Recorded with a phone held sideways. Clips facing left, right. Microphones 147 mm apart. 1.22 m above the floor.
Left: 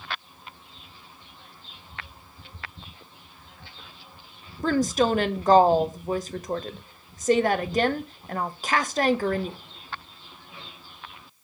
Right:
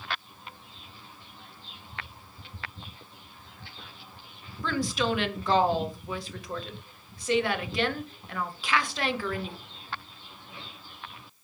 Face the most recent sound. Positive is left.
turn(degrees=40)  # may be behind; listen again after turning